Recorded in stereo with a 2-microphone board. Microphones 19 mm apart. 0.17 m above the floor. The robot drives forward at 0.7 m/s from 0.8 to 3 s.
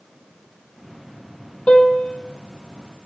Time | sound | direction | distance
1.7 | a piano | 70° left (ahead or behind) | 1.7 m